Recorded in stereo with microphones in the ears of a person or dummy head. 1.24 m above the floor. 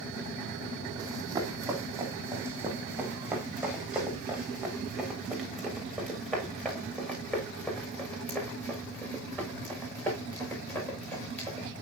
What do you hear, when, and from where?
1.0 s running footsteps: 20° right (ahead or behind), 3.5 m; by 11.7 s 20° left (ahead or behind), 8.5 m